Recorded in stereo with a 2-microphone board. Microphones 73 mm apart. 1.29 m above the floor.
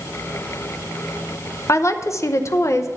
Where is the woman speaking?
40° left (ahead or behind), 0.6 m.